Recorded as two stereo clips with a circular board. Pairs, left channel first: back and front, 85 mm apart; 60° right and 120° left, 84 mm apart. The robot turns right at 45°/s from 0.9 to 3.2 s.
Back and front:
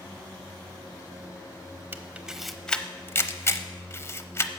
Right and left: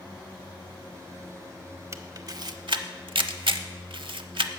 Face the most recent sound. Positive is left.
turn(degrees=120)